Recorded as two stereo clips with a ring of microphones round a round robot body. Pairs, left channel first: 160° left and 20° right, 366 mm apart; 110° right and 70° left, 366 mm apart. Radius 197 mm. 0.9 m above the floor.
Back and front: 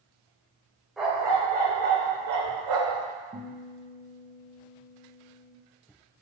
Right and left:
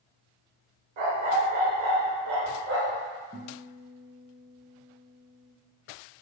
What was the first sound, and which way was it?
A dog barking, 65° left.